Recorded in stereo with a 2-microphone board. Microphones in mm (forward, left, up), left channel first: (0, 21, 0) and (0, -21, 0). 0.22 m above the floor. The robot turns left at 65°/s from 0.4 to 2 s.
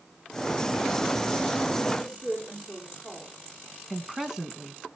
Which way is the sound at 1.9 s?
Centre (ahead or behind).